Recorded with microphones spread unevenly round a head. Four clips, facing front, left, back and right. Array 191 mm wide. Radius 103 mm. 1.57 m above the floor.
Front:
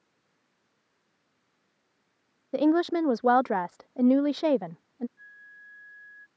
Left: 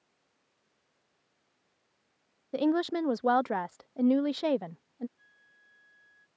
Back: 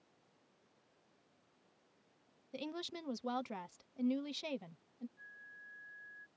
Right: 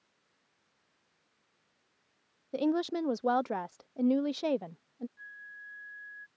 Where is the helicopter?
No helicopter in this recording.